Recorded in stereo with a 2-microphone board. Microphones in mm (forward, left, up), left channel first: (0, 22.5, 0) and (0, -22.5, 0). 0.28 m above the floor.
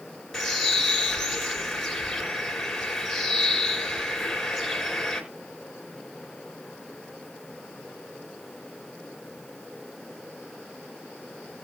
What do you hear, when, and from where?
0.3 s a bird: 10° left (ahead or behind), 3.5 m